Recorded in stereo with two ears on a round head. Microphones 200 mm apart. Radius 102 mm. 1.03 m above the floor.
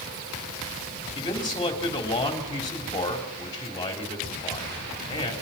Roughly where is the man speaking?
Left.